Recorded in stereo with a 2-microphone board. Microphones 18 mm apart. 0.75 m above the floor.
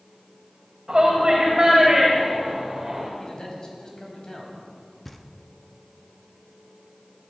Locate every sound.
0.9 s a shout: 35° right (ahead or behind), 3.5 m; by 3.1 s 20° right (ahead or behind), 2.5 m
3.2 s a man speaking: 40° left (ahead or behind), 4 m
5.0 s knocking: 5° left (ahead or behind), 0.8 m